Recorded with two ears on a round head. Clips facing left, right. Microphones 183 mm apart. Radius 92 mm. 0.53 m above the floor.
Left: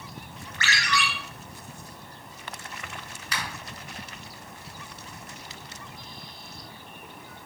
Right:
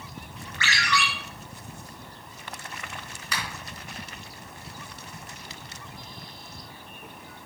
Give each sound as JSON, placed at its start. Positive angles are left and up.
{"t": 0.6, "sound": "a ringtone", "side_deg": 40, "distance_m": 4.5}
{"t": 3.3, "sound": "a finger snap", "side_deg": -75, "distance_m": 4.5}